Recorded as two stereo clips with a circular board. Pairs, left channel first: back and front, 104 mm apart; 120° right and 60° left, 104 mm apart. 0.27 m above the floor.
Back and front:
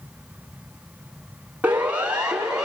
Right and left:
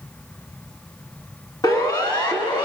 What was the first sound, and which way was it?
A siren, 75° right.